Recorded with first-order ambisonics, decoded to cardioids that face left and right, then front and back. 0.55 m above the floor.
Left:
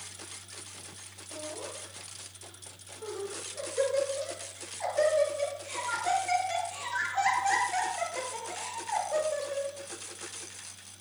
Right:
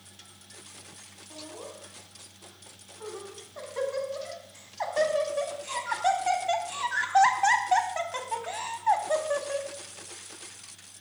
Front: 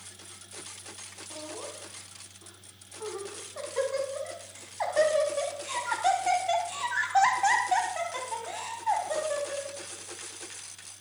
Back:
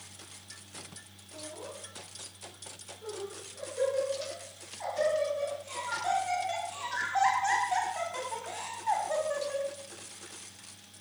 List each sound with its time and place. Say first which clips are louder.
1.3 s laughter: left 3 dB, front 2 dB; 20° right, 5 m; by 9.7 s 90° right, 3.5 m